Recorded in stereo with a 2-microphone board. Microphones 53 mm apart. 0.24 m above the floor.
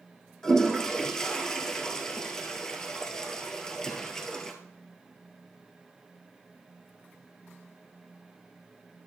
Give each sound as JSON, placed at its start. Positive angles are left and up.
{"t": 0.4, "sound": "a toilet flushing", "side_deg": 15, "distance_m": 1.4}